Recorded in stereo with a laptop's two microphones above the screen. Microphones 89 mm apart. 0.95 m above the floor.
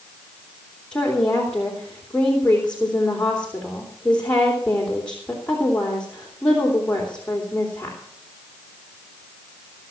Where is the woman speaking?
10° left (ahead or behind), 3.5 m.